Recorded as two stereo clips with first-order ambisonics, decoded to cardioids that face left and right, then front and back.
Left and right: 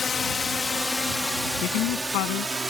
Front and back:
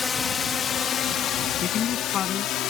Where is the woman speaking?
60° left.